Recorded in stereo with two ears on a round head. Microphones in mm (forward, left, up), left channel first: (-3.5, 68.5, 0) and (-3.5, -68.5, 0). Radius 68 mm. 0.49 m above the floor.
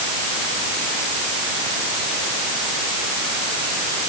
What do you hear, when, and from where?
Only background noise.